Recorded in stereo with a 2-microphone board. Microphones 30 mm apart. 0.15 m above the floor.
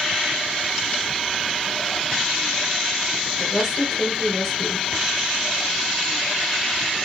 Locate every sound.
3.4 s a woman speaking: 10° left (ahead or behind), 2 m